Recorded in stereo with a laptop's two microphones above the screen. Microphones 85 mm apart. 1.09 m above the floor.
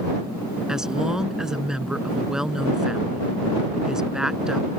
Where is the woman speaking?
5° right (ahead or behind).